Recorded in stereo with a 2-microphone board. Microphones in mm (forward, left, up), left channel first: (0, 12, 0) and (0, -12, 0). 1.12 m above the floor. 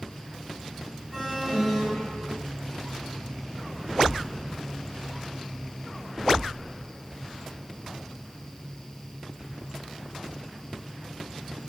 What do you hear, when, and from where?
1.1 s an alarm: 15° left (ahead or behind), 8 m